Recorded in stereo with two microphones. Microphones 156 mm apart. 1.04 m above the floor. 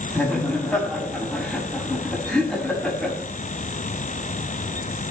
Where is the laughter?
5° left (ahead or behind), 6.5 m.